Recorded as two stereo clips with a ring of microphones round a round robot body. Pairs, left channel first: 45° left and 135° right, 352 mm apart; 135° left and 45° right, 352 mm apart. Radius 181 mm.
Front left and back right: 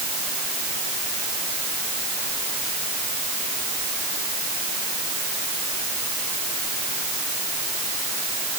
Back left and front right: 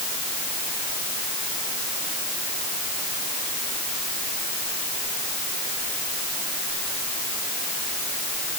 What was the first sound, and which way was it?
Only background noise.